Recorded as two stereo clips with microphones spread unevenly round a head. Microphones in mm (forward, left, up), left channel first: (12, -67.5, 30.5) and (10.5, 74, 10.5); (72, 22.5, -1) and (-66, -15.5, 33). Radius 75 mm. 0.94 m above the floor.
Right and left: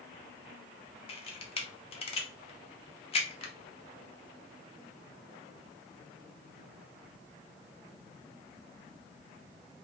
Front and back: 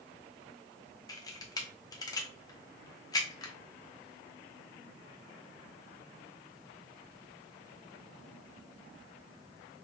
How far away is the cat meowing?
I don't hear a cat meowing.